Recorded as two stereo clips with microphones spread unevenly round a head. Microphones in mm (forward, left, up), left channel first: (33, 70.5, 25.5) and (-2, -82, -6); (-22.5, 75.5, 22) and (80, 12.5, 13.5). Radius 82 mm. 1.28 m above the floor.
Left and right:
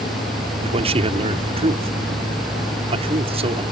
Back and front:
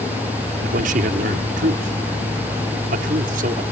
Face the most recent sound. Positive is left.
turn(degrees=-50)